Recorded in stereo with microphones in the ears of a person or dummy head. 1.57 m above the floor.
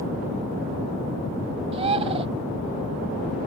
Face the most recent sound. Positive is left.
turn(degrees=-30)  # may be behind; listen again after turning